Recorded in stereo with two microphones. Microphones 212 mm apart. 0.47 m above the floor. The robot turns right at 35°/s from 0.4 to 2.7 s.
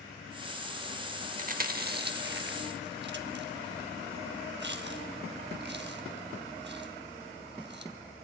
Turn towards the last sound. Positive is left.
turn(degrees=-55)  # may be behind; listen again after turning